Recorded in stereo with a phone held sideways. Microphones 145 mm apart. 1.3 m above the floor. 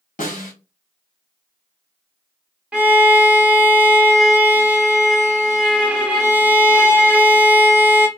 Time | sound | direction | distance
0.2 | a snare drum | 60° left (ahead or behind) | 1.5 m
2.7 | a violin | 10° right (ahead or behind) | 0.8 m